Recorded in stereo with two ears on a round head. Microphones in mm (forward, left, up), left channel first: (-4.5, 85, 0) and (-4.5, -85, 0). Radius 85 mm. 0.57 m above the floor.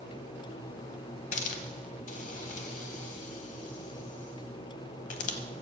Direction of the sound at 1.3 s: 40° left (ahead or behind).